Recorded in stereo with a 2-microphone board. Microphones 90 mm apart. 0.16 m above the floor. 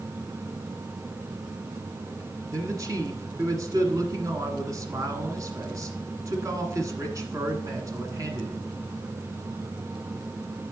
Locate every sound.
2.5 s a man speaking: 40° right (ahead or behind), 1.5 m